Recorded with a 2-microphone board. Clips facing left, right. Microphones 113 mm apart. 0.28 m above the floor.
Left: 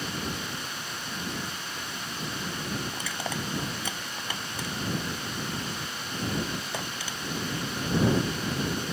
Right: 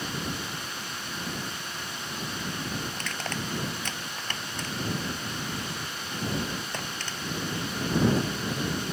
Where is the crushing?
10° left (ahead or behind).